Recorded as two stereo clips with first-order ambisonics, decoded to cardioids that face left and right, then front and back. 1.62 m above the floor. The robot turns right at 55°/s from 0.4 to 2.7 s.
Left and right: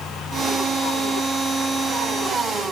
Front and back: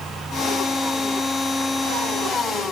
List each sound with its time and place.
Only background noise.